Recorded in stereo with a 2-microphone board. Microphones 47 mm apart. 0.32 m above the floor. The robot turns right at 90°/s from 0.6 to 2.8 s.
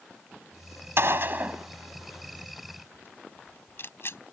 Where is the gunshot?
60° right (ahead or behind); by 4.2 s 60° left (ahead or behind).